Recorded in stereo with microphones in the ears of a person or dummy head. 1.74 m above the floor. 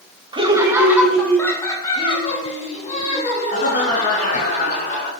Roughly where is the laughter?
Right.